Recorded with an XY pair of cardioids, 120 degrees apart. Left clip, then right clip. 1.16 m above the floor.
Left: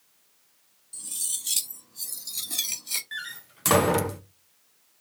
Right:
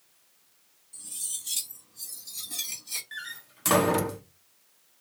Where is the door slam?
20° left, 0.6 m.